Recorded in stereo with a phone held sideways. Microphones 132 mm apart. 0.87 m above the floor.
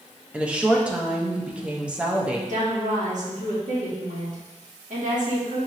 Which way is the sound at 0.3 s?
10° right (ahead or behind).